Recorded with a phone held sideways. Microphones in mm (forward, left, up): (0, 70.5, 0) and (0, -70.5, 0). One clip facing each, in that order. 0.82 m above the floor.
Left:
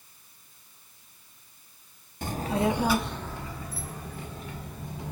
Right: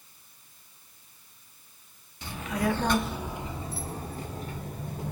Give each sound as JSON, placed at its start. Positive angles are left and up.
{"t": 2.2, "sound": "a child speaking", "side_deg": 50, "distance_m": 0.7}